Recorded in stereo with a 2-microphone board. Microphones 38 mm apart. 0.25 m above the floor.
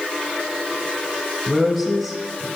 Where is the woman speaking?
Centre (ahead or behind), 1.1 m.